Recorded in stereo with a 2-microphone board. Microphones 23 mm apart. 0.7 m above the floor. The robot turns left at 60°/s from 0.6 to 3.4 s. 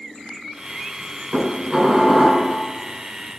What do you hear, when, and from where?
1.3 s dishes clattering: 130° right, 1.8 m; by 2.4 s 160° left, 1.8 m